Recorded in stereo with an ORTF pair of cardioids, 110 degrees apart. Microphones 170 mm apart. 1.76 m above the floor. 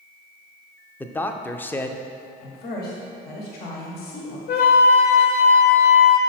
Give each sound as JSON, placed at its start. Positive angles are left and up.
{"t": 1.0, "sound": "a man speaking", "azimuth_deg": 10, "distance_m": 0.5}
{"t": 2.4, "sound": "a woman speaking", "azimuth_deg": 70, "distance_m": 1.3}
{"t": 4.5, "sound": "a flute", "azimuth_deg": 70, "distance_m": 0.9}